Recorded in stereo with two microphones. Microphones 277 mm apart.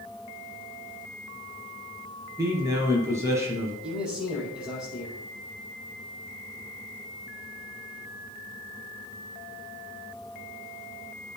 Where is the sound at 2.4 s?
10° right (ahead or behind), 3 m.